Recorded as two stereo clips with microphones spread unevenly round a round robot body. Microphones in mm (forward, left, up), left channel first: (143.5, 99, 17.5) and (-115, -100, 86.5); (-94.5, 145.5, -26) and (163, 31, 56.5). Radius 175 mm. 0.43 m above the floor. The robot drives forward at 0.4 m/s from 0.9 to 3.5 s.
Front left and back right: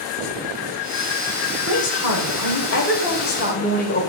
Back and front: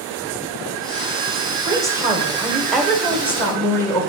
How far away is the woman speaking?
About 2 m.